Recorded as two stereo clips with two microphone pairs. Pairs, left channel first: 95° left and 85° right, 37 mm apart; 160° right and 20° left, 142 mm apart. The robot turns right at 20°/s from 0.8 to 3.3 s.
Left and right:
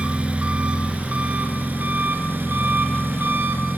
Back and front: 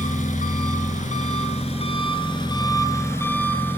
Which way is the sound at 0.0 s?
135° right.